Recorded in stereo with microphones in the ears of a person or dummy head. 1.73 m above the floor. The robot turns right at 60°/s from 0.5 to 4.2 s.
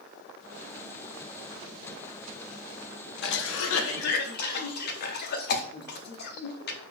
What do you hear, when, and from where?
3.2 s a cough: 65° left (ahead or behind), 0.5 m; by 6.8 s 55° left (ahead or behind), 0.5 m